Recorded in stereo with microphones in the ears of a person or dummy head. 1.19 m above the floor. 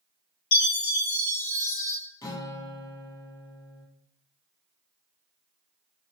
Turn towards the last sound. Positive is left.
turn(degrees=20)  # may be behind; listen again after turning